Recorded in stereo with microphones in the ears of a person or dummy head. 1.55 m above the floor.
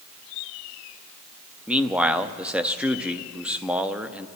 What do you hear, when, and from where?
1.7 s a man speaking: 5° right (ahead or behind), 0.7 m